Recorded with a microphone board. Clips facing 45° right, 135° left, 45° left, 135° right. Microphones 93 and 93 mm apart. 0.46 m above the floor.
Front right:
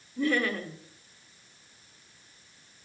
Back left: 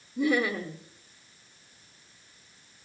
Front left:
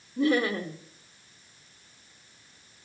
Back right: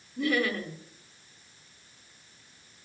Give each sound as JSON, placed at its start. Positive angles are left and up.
{"t": 0.2, "sound": "laughter", "azimuth_deg": 70, "distance_m": 1.2}